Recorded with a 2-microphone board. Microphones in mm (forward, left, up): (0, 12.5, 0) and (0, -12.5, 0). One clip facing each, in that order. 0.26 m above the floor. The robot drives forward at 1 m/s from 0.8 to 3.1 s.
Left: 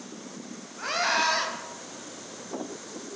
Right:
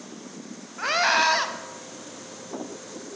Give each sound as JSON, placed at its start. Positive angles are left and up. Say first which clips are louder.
{"t": 0.8, "sound": "a scream", "louder": "right 4 dB", "side_deg": -25, "distance_m": 1.3}